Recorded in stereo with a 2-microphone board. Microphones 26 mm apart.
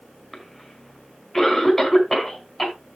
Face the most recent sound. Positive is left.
turn(degrees=10)  # may be behind; listen again after turning